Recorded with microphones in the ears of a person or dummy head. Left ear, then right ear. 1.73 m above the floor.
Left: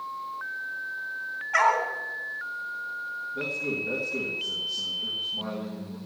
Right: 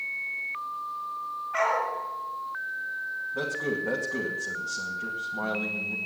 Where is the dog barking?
60° left (ahead or behind), 3 m.